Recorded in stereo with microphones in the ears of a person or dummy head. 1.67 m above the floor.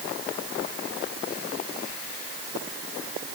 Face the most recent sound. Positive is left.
No sound to turn to.